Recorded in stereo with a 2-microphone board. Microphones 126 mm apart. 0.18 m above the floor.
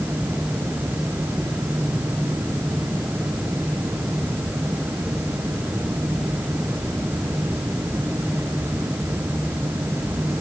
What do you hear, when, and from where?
Only background noise.